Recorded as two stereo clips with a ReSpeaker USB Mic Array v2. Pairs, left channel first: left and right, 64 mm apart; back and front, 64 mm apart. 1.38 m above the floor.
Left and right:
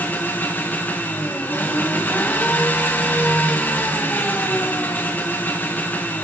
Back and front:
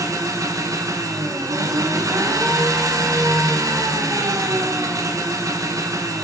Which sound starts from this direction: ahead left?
An engine running, at 0.0 s.